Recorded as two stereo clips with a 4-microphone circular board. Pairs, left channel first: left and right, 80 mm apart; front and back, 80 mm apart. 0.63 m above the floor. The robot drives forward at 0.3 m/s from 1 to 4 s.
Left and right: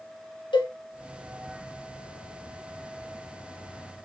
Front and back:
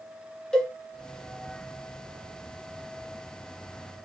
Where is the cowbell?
80° left, 1.1 m.